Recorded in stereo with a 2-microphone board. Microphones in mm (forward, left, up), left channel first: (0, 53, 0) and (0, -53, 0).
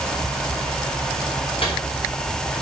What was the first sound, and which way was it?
A microwave, 60° left (ahead or behind).